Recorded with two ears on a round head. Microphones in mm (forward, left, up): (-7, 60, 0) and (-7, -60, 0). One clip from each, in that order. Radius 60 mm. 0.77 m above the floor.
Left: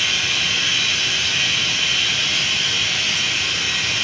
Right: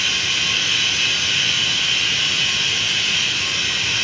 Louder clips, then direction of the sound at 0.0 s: Even; centre (ahead or behind).